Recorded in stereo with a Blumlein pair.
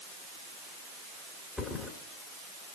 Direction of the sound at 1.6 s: 15° left.